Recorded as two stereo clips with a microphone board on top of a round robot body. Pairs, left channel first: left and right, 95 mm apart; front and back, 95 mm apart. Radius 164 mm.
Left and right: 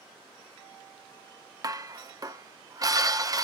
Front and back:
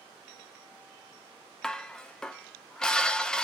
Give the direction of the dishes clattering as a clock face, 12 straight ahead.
3 o'clock.